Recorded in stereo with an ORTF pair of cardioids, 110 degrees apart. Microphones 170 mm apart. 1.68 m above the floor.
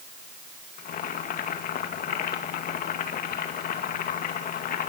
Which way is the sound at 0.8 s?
60° left.